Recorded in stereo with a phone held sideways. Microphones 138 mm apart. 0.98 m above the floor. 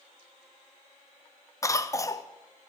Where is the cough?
20° left (ahead or behind), 0.6 m.